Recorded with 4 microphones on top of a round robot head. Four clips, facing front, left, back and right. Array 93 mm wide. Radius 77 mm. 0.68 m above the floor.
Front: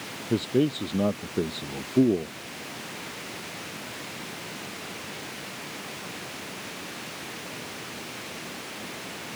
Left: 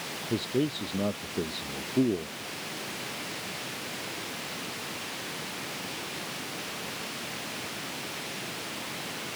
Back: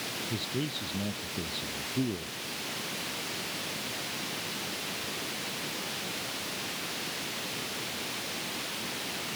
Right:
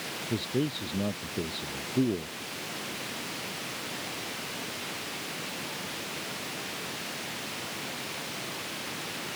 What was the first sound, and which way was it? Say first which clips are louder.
A man speaking: left 2 dB, front 13 dB; 5° left.